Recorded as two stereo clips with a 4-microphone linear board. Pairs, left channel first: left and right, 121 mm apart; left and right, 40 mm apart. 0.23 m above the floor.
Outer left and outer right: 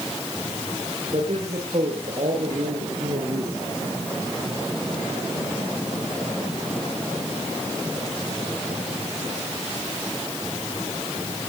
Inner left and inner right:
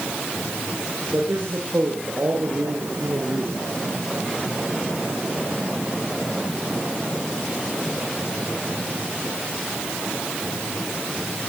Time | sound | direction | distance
1.1 | a man speaking | 60° right (ahead or behind) | 7.5 m